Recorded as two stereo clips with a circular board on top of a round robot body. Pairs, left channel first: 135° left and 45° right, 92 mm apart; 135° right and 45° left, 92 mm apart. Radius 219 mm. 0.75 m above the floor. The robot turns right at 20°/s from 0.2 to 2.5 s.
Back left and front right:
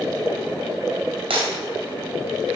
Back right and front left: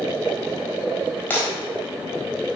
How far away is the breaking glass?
About 3 m.